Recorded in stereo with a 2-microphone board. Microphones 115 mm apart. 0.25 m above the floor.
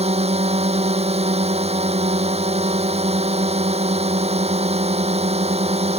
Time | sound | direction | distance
0.0 | a drone | 65° right (ahead or behind) | ?